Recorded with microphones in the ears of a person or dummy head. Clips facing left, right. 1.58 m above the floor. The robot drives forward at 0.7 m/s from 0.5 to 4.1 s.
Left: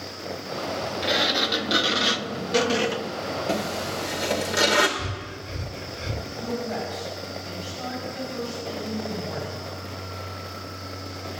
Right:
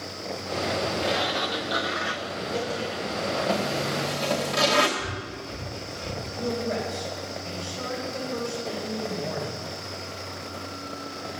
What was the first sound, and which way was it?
A sliding door, 20° left (ahead or behind).